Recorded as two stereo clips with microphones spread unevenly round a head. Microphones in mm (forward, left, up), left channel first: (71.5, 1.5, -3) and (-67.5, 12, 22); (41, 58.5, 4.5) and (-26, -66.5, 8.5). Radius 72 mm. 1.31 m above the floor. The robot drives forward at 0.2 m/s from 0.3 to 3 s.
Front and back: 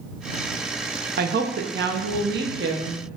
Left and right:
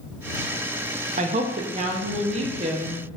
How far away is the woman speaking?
About 0.5 m.